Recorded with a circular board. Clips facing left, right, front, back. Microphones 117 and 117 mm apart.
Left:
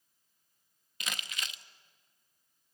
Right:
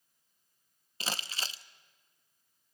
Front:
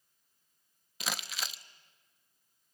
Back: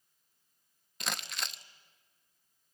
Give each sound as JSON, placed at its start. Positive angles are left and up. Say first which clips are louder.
{"t": 1.0, "sound": "crumpling", "louder": "right 3 dB, even", "azimuth_deg": -85, "distance_m": 0.8}